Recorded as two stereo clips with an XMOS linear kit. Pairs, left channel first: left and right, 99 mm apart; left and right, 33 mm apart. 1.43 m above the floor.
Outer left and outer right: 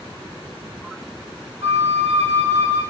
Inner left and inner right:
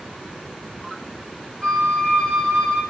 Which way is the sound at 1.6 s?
30° left (ahead or behind).